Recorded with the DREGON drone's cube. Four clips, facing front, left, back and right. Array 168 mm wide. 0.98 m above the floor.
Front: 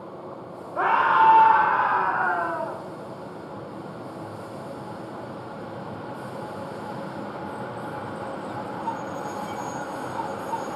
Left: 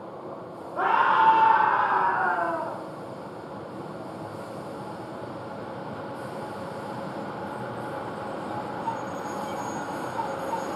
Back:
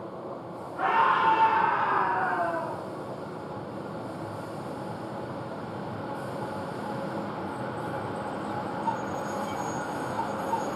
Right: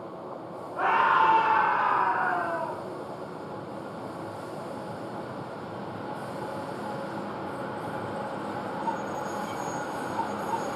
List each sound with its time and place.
0.8 s a scream: 20° left, 3.5 m; by 2.8 s 35° left, 2.5 m